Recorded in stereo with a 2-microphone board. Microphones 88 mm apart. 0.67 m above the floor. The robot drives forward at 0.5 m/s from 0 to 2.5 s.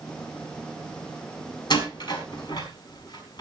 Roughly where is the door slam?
Left.